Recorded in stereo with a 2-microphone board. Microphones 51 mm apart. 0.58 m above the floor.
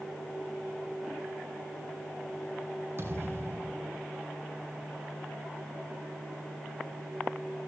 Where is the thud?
55° right (ahead or behind), 3.5 m.